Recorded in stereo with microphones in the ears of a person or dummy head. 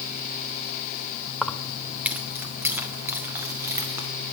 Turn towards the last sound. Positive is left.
turn(degrees=-15)  # may be behind; listen again after turning